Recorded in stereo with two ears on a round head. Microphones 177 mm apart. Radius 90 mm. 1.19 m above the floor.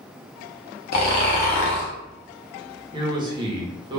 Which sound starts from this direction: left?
Snoring, at 0.9 s.